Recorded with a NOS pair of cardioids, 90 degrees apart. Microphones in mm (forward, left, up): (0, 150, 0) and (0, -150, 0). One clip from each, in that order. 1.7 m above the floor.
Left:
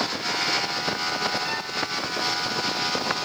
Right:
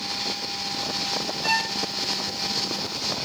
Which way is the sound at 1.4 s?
50° right.